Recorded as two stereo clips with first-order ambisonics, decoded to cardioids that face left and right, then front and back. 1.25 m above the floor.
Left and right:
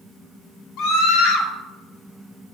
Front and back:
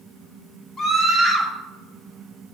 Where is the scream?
55° left, 3 m.